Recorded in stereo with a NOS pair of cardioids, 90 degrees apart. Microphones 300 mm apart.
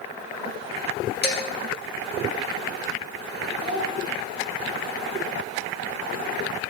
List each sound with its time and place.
1.2 s dishes clattering: 35° left, 2 m
3.6 s a child speaking: 15° right, 2.0 m